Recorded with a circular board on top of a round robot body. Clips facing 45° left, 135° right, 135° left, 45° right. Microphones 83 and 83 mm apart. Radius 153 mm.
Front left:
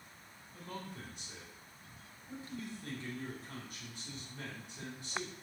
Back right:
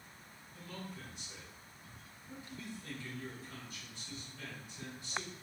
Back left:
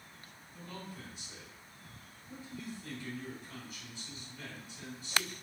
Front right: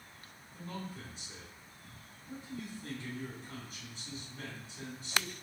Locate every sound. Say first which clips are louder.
0.5 s a man speaking: front left 2 dB, front right 3 dB; 15° left, 2.5 m